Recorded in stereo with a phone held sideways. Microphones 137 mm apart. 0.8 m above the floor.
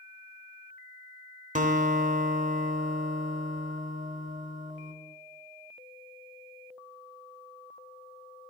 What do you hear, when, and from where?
1.6 s a guitar: 65° right (ahead or behind), 1.2 m